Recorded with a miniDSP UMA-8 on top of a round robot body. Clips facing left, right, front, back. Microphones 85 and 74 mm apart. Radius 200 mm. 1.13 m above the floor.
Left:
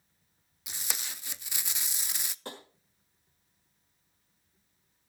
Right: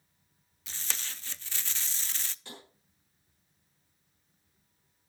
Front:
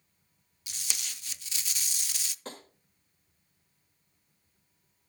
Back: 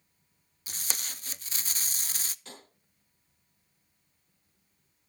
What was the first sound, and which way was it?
Tape being pulled, 160° left.